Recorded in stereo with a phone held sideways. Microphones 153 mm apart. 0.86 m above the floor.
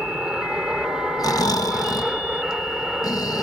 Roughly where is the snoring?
Left.